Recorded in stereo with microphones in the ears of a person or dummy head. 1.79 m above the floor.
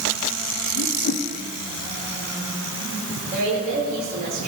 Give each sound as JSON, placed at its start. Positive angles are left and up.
{"t": 0.8, "sound": "a whoosh", "side_deg": 55, "distance_m": 0.7}
{"t": 3.3, "sound": "a woman speaking", "side_deg": -50, "distance_m": 5.5}